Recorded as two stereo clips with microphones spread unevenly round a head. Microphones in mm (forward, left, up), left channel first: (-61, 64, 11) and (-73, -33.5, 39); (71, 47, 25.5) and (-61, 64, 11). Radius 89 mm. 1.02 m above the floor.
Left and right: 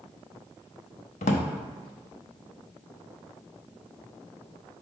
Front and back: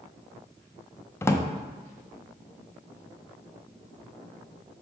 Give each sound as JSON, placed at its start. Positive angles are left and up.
{"t": 1.2, "sound": "a drawer", "azimuth_deg": 60, "distance_m": 0.6}